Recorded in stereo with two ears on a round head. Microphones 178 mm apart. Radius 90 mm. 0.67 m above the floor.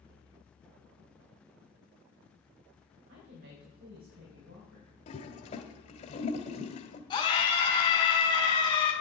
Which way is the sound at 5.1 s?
35° left (ahead or behind).